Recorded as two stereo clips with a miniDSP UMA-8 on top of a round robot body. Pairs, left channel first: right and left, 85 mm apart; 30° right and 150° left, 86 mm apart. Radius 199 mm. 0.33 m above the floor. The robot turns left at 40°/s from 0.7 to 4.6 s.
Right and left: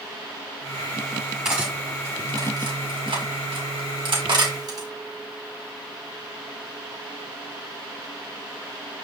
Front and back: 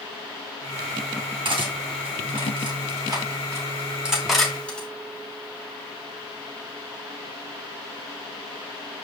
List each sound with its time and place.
1.4 s cutlery clinking: 175° left, 2.5 m; by 4.9 s 45° left, 2.5 m